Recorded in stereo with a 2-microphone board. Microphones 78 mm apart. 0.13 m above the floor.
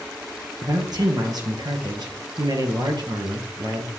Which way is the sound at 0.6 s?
55° right (ahead or behind).